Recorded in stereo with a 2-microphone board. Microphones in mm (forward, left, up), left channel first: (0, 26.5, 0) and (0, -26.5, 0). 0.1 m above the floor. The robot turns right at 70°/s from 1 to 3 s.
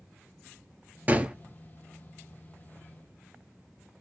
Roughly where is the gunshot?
Right.